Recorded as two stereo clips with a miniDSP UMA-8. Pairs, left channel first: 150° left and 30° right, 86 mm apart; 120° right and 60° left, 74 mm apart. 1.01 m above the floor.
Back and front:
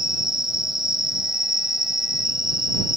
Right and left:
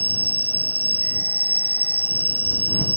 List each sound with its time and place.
0.0 s an insect: 60° right